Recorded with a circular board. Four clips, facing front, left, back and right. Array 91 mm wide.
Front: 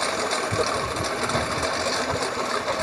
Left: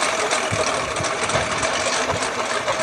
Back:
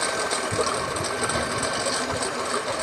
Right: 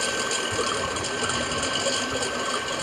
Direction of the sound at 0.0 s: 85° left.